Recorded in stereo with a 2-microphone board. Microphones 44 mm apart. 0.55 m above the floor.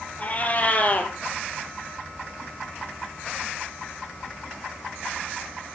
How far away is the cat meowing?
About 3 m.